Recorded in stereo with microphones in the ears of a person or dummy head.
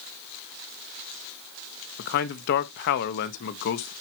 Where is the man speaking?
60° left (ahead or behind), 1.0 m.